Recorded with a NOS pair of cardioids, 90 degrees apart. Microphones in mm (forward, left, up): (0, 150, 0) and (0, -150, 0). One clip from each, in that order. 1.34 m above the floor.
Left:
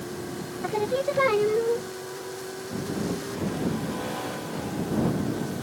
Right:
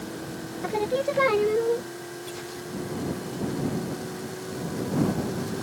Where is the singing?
5° right.